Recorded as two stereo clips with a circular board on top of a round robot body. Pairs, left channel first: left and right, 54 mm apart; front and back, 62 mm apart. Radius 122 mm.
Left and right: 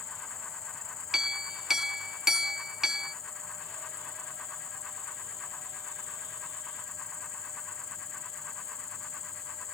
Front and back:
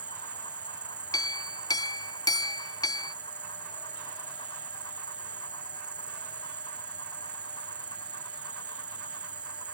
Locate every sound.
0.0 s an insect: 110° left
1.1 s a clink: 10° right